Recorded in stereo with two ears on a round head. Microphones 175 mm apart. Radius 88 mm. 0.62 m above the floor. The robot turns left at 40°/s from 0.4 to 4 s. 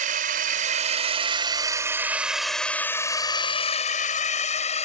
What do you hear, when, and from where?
0.0 s a drone: 45° right (ahead or behind); by 4.8 s 35° left (ahead or behind)